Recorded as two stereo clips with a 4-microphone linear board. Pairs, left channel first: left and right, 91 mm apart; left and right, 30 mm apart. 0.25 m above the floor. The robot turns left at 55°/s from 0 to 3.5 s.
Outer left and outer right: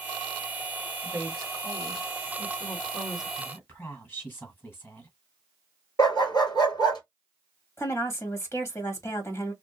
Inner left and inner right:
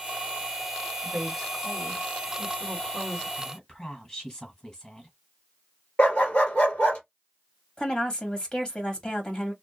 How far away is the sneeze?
I don't hear a sneeze.